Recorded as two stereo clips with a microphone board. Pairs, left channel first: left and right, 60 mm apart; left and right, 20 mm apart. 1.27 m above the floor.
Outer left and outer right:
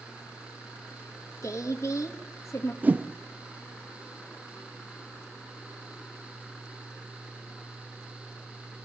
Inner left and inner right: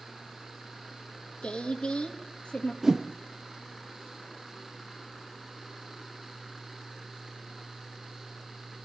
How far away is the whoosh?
About 1.0 m.